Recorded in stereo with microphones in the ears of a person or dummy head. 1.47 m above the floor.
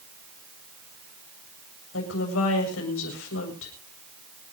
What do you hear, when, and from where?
1.9 s a woman speaking: 85° left, 7.5 m